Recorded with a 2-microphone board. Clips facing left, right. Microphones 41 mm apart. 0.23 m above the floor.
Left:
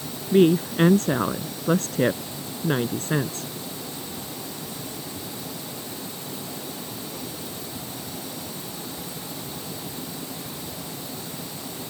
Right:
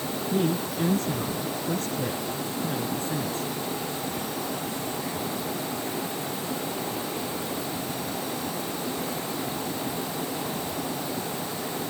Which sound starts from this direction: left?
A woman speaking, at 0.3 s.